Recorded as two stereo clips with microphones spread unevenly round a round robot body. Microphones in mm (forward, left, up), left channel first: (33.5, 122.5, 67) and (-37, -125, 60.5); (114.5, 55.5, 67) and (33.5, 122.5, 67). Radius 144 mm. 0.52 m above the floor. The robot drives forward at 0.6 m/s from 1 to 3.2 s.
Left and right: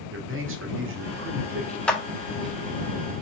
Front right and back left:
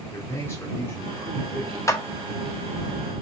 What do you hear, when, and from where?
0.1 s a man speaking: 100° right, 1.2 m; by 1.8 s 125° right, 1.4 m
1.9 s a clap: 10° right, 0.9 m; by 2.0 s 15° right, 0.9 m